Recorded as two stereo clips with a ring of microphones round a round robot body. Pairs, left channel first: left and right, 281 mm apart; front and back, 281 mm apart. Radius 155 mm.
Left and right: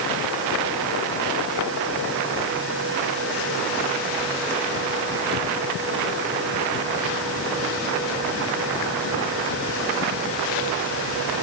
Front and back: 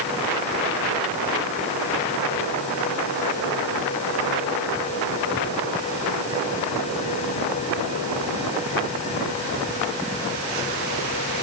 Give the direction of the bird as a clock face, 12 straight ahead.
No bird in this recording.